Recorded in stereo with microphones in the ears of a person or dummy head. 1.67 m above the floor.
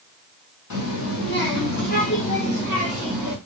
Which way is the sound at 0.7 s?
65° left (ahead or behind).